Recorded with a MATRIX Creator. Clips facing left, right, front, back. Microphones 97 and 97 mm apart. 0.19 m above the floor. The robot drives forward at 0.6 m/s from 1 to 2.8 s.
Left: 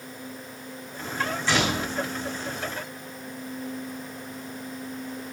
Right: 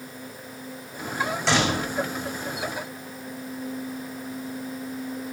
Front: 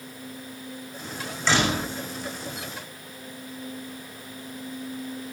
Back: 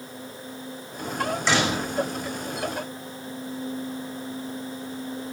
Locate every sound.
1.5 s a door slam: 105° right, 8.5 m